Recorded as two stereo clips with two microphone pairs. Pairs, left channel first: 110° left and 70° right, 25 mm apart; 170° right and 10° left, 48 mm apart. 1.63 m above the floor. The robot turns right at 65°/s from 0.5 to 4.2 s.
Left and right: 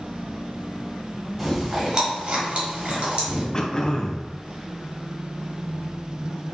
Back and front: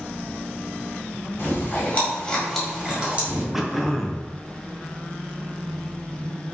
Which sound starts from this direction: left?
Throat clearing, at 3.5 s.